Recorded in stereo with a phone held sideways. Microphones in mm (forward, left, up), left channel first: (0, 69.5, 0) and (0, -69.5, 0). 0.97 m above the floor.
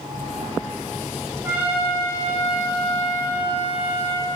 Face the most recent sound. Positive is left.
turn(degrees=-15)  # may be behind; listen again after turning